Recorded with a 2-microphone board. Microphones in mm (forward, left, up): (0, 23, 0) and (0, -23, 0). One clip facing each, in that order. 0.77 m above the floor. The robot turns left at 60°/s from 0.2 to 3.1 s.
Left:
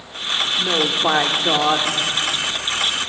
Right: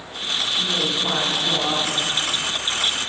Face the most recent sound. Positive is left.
turn(degrees=-30)